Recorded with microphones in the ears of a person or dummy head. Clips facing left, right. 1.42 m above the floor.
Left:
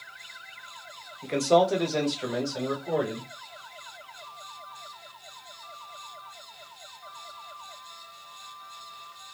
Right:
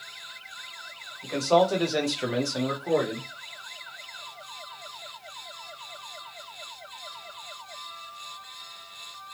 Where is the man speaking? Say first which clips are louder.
Even; 35° left (ahead or behind), 0.8 m; by 3.3 s 70° right (ahead or behind), 1.4 m.